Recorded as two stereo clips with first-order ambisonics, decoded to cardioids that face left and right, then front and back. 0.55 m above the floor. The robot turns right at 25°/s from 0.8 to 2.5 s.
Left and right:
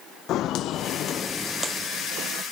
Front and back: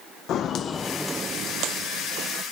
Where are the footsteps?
45° left, 1.1 m; by 2.4 s 125° right, 1.3 m.